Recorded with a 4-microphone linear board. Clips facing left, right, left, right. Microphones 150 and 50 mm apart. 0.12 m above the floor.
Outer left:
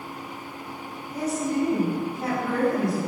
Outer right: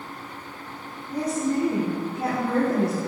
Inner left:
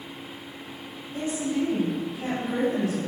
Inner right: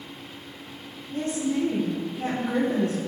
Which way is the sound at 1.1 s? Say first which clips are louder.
Outer right 2 dB, inner right 1 dB; 30° right (ahead or behind).